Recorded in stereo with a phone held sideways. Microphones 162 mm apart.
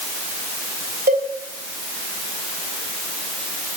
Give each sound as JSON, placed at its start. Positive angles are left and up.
{"t": 1.1, "sound": "a cowbell", "side_deg": -70, "distance_m": 3.0}